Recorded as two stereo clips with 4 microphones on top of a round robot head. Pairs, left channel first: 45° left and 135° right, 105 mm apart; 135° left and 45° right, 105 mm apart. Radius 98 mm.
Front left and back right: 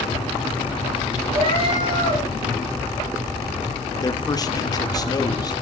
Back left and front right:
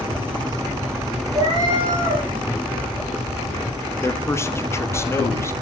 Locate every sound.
1.3 s a cat meowing: 100° right, 4.5 m
4.0 s a man speaking: 80° left, 1.5 m